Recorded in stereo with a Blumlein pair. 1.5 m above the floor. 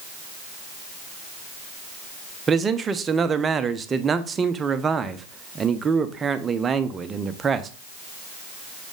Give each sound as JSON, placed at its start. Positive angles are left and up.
{"t": 2.5, "sound": "a man speaking", "azimuth_deg": -20, "distance_m": 0.7}